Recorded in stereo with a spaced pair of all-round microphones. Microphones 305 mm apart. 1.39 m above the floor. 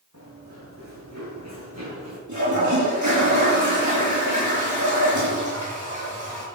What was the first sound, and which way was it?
Running footsteps, 65° right (ahead or behind).